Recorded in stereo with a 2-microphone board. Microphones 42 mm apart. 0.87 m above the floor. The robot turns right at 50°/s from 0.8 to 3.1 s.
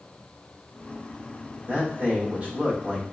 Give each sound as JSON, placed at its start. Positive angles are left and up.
{"t": 1.7, "sound": "a man speaking", "azimuth_deg": -90, "distance_m": 1.1}